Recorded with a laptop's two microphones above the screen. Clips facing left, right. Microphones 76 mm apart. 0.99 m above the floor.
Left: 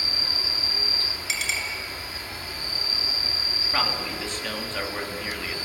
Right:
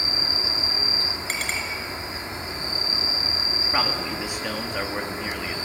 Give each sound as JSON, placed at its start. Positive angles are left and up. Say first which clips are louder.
{"t": 0.0, "sound": "an insect", "louder": "right 3 dB", "side_deg": -25, "distance_m": 0.8}
{"t": 1.3, "sound": "a clink", "louder": "even", "side_deg": -45, "distance_m": 7.0}
{"t": 3.7, "sound": "a man speaking", "louder": "right 1 dB", "side_deg": -10, "distance_m": 1.8}